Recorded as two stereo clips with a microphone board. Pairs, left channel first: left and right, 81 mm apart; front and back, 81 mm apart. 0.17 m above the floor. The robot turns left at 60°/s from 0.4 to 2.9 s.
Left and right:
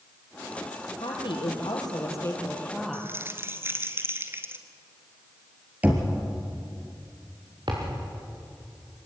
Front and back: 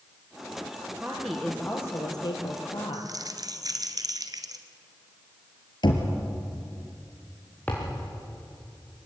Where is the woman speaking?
105° left, 4.5 m; by 3.1 s 5° right, 4.5 m.